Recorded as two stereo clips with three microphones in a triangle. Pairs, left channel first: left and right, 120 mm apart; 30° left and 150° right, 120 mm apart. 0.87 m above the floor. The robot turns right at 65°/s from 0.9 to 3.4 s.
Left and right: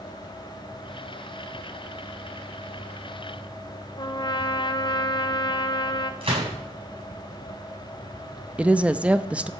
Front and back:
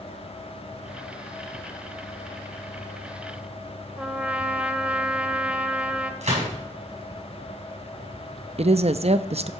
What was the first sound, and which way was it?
A trumpet, 130° left.